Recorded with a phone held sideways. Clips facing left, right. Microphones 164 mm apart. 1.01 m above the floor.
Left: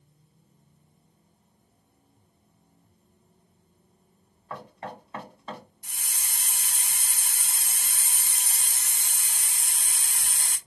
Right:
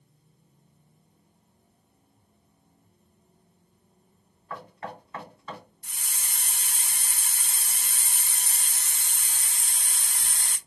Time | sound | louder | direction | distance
4.5 | knocking | even | 25° left (ahead or behind) | 2 m
5.8 | a hiss | even | 15° left (ahead or behind) | 1.0 m